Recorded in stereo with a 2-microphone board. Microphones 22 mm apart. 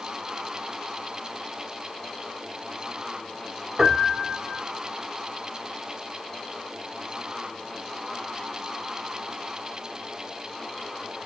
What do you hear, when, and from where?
3.8 s a piano: 30° right (ahead or behind), 0.8 m